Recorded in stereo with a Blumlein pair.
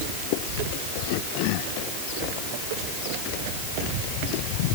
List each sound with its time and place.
Only background noise.